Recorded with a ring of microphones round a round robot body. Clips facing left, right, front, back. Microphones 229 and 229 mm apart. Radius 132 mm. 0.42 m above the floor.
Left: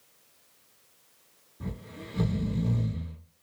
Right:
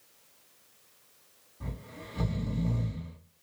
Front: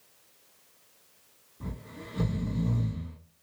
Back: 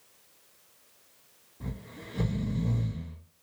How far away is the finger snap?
I don't hear a finger snap.